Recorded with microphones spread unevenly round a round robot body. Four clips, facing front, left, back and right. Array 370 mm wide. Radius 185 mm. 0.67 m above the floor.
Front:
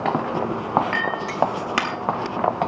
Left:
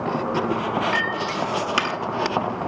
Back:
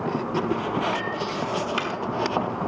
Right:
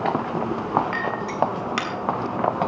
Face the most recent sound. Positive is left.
turn(degrees=-10)